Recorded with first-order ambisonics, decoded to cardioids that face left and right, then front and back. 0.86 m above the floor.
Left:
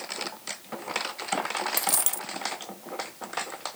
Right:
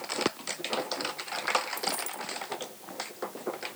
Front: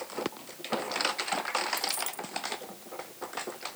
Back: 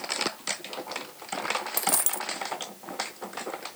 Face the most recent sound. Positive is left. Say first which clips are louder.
# left 3 dB, back 4 dB
turn(degrees=130)